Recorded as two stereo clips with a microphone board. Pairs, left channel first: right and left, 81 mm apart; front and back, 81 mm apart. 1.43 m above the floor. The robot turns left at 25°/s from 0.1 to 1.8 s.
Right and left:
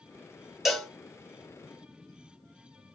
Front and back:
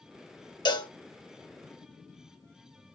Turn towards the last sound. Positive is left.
turn(degrees=-25)